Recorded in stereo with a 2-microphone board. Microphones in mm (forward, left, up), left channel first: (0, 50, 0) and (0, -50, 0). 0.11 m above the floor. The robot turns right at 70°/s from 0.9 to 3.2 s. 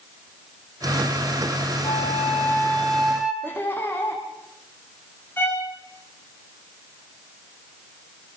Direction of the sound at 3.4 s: 20° left (ahead or behind).